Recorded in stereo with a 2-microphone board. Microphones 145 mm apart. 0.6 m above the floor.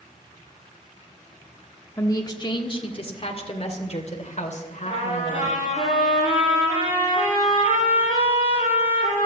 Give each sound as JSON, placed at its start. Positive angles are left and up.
{"t": 2.0, "sound": "a woman speaking", "side_deg": 20, "distance_m": 1.4}
{"t": 4.8, "sound": "a trumpet", "side_deg": 45, "distance_m": 9.0}